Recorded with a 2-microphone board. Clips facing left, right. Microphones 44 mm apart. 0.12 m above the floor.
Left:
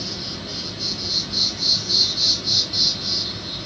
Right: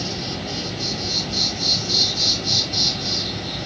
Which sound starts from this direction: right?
An insect, at 0.0 s.